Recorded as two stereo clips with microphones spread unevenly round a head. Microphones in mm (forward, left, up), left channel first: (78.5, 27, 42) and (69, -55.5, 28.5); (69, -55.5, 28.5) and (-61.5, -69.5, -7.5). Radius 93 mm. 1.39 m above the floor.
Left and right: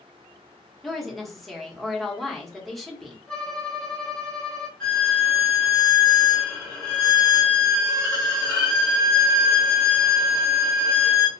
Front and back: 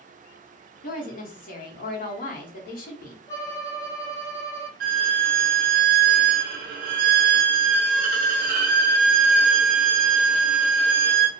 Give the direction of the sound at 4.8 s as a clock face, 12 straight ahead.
7 o'clock.